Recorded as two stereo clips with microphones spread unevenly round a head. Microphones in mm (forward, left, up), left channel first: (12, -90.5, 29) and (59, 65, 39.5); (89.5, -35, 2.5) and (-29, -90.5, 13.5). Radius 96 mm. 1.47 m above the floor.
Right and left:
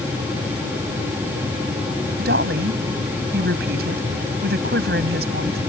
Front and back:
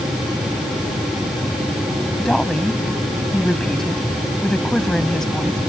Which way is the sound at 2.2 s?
115° left.